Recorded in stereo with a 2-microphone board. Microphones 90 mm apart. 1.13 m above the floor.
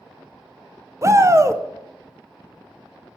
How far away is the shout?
About 0.5 m.